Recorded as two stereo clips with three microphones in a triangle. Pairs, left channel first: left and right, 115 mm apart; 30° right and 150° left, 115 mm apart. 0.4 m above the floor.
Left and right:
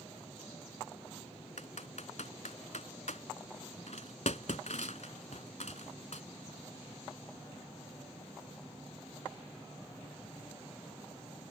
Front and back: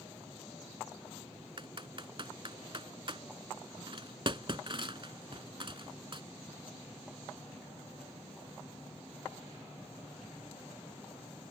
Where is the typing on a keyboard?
105° left.